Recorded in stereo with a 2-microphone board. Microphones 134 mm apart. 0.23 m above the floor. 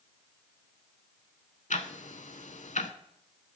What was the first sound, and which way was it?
Ticking, 65° left (ahead or behind).